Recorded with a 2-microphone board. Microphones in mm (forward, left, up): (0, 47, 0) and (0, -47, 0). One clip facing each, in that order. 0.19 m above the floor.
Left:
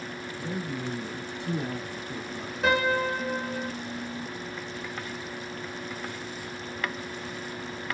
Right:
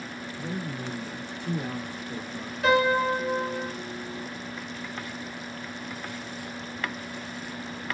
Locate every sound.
0.4 s a man speaking: 25° right (ahead or behind), 1.6 m; by 2.5 s 25° left (ahead or behind), 1.6 m
2.6 s a piano: 30° left (ahead or behind), 1.2 m